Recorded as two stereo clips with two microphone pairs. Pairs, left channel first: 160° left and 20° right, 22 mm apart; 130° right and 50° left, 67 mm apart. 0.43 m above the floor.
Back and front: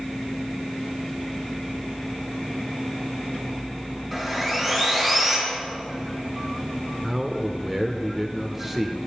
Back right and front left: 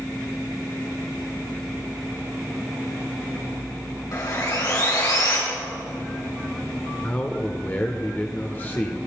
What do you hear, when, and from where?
4.1 s sawing: 115° right, 4 m
7.0 s a man speaking: 95° right, 0.9 m